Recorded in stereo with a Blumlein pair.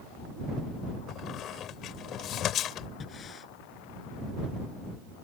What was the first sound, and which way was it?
A squeak, 30° left.